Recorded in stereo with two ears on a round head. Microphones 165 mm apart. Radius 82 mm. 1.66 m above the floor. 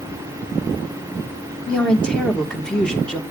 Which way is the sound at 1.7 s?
5° left (ahead or behind).